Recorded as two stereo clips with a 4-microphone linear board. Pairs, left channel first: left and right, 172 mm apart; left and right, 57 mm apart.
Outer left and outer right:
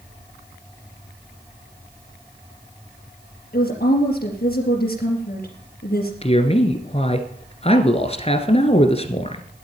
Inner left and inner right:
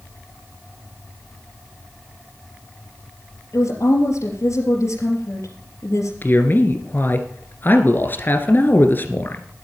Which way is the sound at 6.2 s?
35° left (ahead or behind).